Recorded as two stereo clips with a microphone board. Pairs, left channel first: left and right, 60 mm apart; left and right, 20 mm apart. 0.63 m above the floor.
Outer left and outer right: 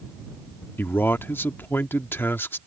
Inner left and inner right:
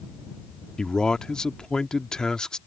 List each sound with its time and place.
0.8 s a man speaking: 35° left (ahead or behind)